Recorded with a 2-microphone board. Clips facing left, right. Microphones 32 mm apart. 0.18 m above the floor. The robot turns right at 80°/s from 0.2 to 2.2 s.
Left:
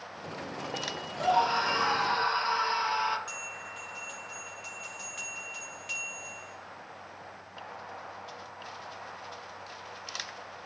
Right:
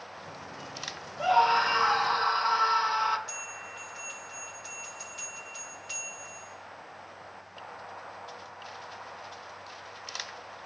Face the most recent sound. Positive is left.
turn(degrees=75)  # may be behind; listen again after turning